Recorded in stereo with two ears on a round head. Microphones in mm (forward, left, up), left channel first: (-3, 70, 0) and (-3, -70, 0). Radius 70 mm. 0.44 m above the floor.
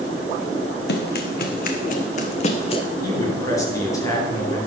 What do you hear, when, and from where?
0.9 s running footsteps: 70° left (ahead or behind), 2 m; by 2.8 s 35° left (ahead or behind), 1.6 m
3.0 s a man speaking: 20° left (ahead or behind), 5.5 m